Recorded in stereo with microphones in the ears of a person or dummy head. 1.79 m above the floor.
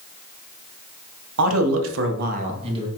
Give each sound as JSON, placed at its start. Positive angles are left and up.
{"t": 1.4, "sound": "a man speaking", "side_deg": -80, "distance_m": 0.7}